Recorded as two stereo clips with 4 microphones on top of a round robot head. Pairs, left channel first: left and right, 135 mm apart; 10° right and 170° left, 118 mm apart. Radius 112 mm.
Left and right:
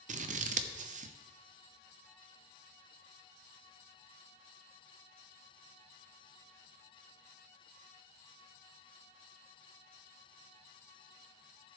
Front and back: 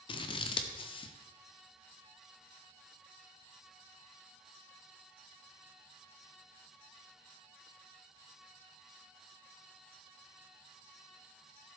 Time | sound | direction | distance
0.1 | scissors | 60° right | 0.6 m